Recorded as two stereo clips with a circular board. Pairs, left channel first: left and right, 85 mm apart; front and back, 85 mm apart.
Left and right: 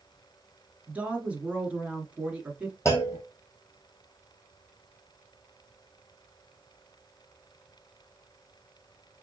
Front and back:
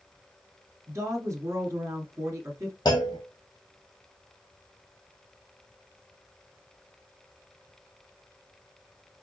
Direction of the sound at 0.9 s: 155° right.